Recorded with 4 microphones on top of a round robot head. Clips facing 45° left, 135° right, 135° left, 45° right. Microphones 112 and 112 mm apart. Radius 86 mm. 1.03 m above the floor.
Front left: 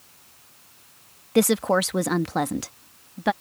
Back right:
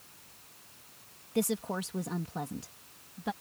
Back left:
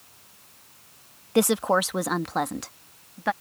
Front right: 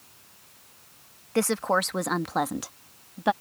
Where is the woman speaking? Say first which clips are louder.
Front left 12 dB, back left 3 dB; 65° left; by 3.3 s 25° left.